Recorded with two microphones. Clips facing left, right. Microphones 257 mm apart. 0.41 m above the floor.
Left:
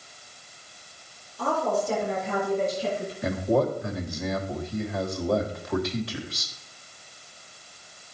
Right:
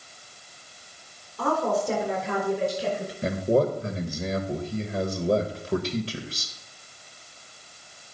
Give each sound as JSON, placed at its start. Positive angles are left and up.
{"t": 1.4, "sound": "a woman speaking", "side_deg": -60, "distance_m": 4.5}
{"t": 3.2, "sound": "a man speaking", "side_deg": -30, "distance_m": 1.4}